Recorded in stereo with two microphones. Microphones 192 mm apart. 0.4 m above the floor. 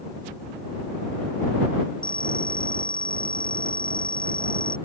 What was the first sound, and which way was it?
A phone ringing, 45° left (ahead or behind).